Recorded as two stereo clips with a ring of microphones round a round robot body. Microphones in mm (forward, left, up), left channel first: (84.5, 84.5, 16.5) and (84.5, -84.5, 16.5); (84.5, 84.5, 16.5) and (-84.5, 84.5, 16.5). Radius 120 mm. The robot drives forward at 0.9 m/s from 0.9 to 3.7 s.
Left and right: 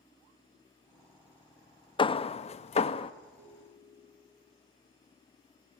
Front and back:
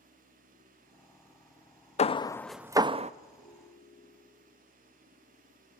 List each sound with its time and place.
2.0 s hammering: 35° left, 0.8 m; by 3.1 s 145° left, 0.8 m
3.4 s a ringtone: 130° right, 2 m; by 4.4 s 135° right, 2 m